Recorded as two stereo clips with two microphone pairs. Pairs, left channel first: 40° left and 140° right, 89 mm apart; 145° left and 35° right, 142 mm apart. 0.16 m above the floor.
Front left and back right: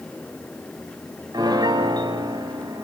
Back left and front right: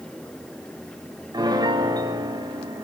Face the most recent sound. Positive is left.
turn(degrees=-100)